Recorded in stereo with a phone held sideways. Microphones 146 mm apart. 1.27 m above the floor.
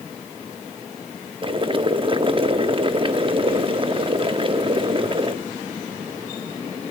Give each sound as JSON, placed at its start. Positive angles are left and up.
{"t": 1.4, "sound": "boiling", "side_deg": -35, "distance_m": 0.9}